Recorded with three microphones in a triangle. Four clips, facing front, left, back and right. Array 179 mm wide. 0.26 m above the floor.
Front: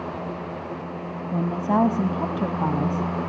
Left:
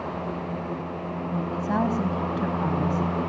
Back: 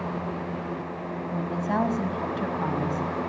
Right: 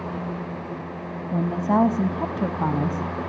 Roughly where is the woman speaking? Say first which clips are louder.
Right 6 dB, front 5 dB; ahead right.